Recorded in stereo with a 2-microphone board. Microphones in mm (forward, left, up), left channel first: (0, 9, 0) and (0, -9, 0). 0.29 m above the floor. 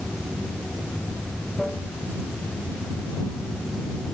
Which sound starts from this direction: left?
Running water, at 0.0 s.